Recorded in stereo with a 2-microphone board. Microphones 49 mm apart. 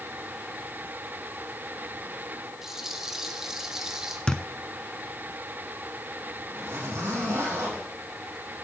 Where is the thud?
20° left (ahead or behind), 0.7 m.